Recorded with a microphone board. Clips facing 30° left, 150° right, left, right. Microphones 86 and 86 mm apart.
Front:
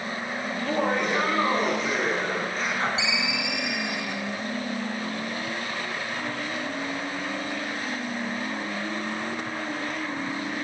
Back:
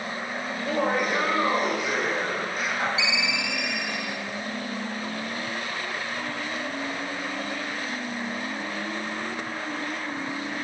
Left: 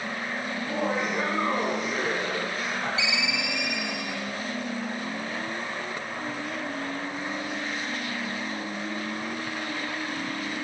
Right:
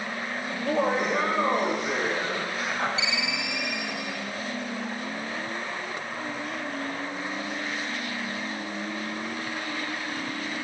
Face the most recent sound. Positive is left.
turn(degrees=-35)